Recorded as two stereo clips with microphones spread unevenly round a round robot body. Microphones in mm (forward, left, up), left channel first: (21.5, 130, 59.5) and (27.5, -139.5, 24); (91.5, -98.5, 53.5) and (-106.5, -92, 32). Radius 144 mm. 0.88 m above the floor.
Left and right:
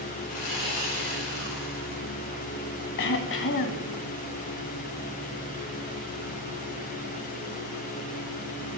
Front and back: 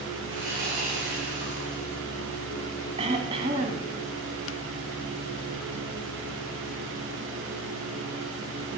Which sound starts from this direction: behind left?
Sawing, at 0.3 s.